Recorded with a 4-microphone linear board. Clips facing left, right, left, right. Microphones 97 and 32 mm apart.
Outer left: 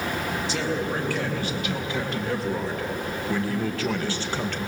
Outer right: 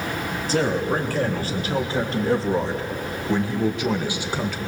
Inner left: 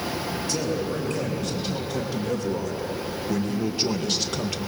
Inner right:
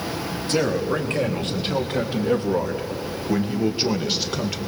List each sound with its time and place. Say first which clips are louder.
0.5 s a man speaking: outer right 8 dB, inner right 7 dB; 45° right (ahead or behind), 3.5 m; by 4.6 s 5° right (ahead or behind), 1.9 m